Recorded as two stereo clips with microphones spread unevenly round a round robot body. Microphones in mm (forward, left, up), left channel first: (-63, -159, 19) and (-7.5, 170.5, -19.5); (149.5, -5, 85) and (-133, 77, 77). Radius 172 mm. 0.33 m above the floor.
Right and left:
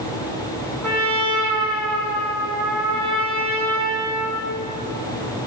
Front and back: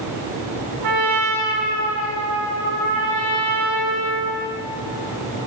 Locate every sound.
0.8 s a trumpet: 170° left, 3.5 m